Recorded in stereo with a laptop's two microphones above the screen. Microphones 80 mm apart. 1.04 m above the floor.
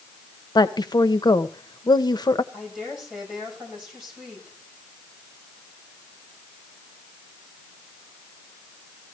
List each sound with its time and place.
0.6 s a woman speaking: 60° left (ahead or behind), 0.8 m
2.5 s a woman speaking: 5° right (ahead or behind), 6.5 m